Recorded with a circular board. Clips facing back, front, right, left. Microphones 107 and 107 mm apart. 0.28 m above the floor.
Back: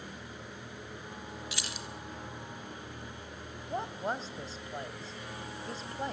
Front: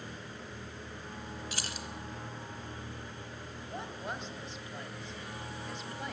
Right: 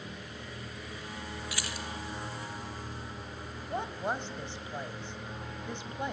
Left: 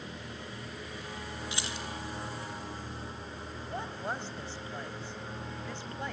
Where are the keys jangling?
30° left, 1.5 m.